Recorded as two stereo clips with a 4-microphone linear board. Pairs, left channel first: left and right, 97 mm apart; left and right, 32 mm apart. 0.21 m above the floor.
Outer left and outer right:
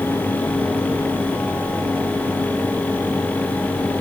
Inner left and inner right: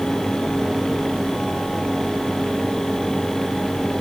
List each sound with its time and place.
Only background noise.